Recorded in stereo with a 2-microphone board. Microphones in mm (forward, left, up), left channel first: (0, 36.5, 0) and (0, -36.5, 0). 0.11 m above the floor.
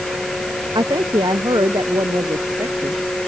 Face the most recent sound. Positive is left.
turn(degrees=-65)  # may be behind; listen again after turning